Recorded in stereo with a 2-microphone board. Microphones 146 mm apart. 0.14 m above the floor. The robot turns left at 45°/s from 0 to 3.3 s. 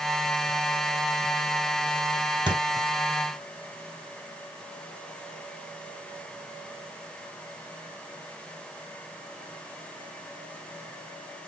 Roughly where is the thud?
Right.